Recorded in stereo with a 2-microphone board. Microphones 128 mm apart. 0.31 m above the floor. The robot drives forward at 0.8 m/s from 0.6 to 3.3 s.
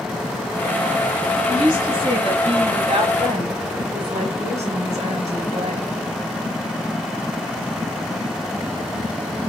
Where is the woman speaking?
35° right (ahead or behind), 2.5 m; by 5.9 s 60° right (ahead or behind), 1.7 m.